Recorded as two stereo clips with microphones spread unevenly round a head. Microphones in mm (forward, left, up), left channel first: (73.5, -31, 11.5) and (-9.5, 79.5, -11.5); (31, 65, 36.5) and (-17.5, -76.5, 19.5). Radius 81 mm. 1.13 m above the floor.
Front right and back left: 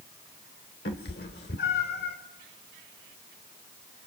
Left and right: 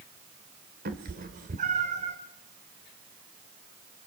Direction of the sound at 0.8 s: 80° right.